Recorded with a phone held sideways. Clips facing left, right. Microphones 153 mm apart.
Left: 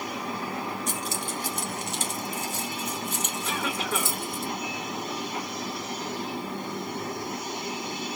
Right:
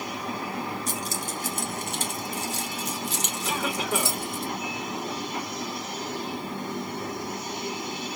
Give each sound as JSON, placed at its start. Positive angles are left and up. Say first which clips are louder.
{"t": 0.9, "sound": "keys jangling", "louder": "even", "side_deg": -35, "distance_m": 1.4}
{"t": 3.5, "sound": "a cough", "louder": "right 3 dB", "side_deg": -15, "distance_m": 3.0}